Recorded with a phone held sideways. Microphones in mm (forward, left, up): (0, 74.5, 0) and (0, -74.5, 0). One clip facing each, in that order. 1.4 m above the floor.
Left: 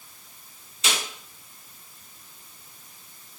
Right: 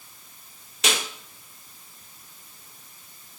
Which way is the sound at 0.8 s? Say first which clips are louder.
Right 3 dB; 75° right (ahead or behind).